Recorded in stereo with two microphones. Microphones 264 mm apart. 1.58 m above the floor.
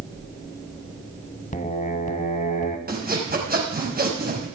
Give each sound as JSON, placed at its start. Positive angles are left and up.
{"t": 1.5, "sound": "singing", "side_deg": 25, "distance_m": 1.6}
{"t": 2.9, "sound": "sawing", "side_deg": -35, "distance_m": 5.0}